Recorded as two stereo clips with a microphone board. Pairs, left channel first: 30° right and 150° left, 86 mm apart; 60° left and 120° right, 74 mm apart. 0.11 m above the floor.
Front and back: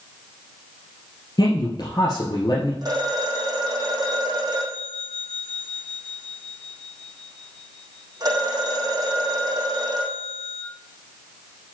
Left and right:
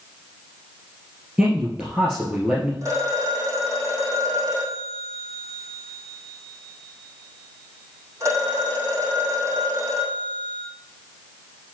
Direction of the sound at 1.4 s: 45° right.